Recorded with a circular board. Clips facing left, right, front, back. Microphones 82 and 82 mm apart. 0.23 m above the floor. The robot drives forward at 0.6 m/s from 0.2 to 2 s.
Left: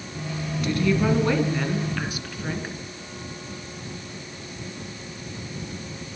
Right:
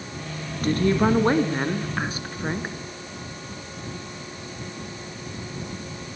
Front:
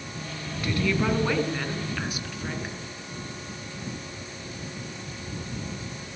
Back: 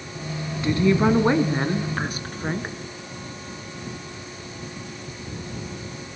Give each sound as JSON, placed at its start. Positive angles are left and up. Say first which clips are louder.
{"t": 0.6, "sound": "a woman speaking", "louder": "right 2 dB, back 6 dB", "azimuth_deg": -120, "distance_m": 2.5}